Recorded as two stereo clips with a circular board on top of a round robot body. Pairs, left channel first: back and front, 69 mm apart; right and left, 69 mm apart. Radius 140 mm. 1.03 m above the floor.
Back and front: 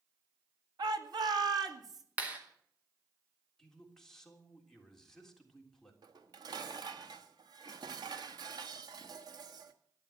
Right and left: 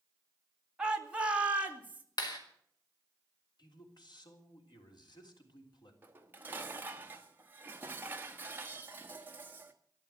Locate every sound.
0.8 s a shout: 10° left, 2 m; by 2.0 s 25° left, 2.5 m
2.2 s a clap: 70° right, 3 m
3.6 s a man speaking: 95° right, 3.5 m
6.0 s dishes clattering: 25° left, 1.2 m